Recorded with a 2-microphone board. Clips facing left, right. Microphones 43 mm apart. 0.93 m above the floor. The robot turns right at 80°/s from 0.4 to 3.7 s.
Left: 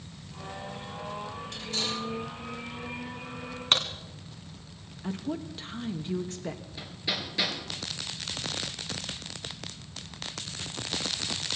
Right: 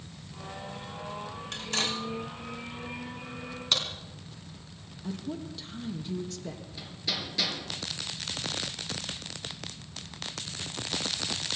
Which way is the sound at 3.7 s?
45° left (ahead or behind).